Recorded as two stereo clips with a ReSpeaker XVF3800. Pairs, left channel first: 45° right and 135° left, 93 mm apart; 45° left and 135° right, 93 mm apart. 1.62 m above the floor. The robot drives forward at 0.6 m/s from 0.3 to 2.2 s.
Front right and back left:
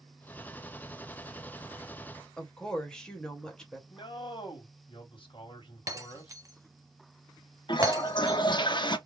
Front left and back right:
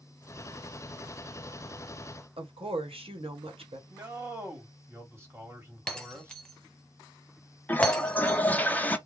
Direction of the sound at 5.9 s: 120° left.